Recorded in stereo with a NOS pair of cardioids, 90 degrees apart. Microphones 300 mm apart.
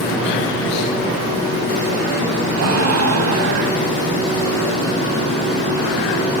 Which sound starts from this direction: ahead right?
A gasp, at 2.5 s.